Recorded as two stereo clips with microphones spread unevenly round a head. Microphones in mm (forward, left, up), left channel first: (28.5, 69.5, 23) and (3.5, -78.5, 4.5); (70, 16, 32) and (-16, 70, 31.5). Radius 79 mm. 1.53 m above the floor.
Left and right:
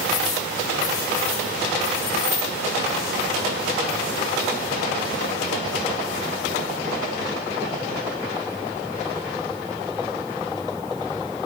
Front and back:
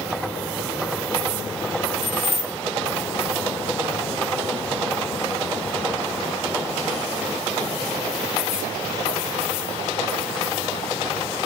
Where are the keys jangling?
60° left, 3.5 m.